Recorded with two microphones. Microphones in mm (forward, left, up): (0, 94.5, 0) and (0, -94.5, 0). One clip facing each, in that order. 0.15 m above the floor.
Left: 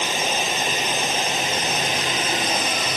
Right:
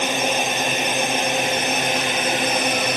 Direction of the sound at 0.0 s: 60° right (ahead or behind).